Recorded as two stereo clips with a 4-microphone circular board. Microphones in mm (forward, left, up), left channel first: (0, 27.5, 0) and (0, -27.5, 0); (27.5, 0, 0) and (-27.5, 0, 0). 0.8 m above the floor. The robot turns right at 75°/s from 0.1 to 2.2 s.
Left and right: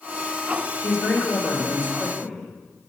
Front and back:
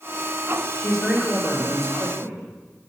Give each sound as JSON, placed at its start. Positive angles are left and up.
{"t": 0.8, "sound": "a man speaking", "azimuth_deg": 70, "distance_m": 3.0}